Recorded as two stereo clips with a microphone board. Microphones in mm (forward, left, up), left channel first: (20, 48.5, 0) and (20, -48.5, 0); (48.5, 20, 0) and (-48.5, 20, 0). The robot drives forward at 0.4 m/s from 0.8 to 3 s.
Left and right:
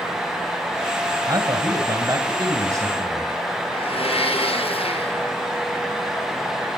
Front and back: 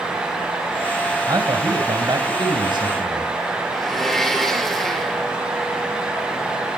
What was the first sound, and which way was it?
A man speaking, 135° right.